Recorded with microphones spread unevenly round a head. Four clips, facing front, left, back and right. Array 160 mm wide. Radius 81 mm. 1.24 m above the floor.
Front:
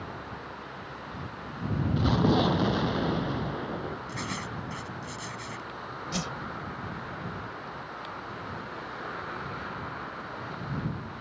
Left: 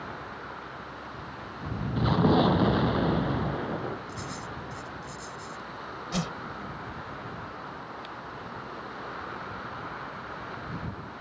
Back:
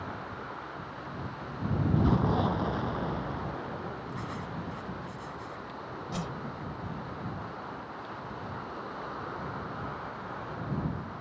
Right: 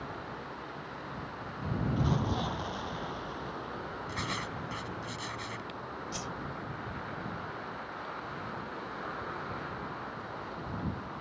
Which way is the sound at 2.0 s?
60° left.